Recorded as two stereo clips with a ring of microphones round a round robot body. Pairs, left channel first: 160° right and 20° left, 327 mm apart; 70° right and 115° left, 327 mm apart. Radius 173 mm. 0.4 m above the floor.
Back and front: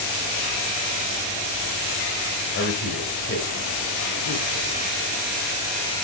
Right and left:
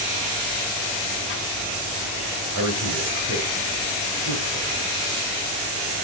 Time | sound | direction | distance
2.5 | a man speaking | 155° left | 2 m